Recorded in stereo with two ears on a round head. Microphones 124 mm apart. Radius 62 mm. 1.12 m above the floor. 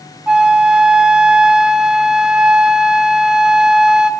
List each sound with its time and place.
0.3 s a flute: 5° right (ahead or behind), 0.6 m